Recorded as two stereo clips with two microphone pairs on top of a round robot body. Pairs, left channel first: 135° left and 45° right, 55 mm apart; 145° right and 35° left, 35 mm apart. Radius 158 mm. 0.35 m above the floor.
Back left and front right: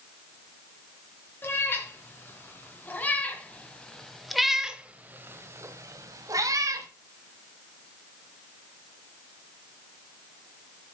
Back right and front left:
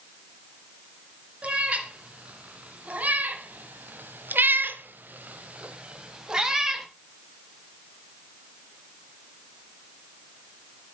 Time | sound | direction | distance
1.4 | a cat meowing | 90° left | 3 m